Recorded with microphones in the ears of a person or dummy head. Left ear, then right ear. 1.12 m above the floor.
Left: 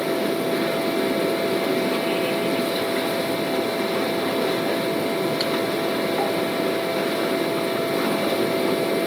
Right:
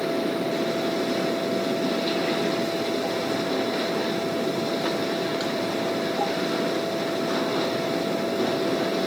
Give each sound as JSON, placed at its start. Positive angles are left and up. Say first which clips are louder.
{"t": 0.0, "sound": "a fan", "louder": "left 3 dB", "side_deg": 30, "distance_m": 1.5}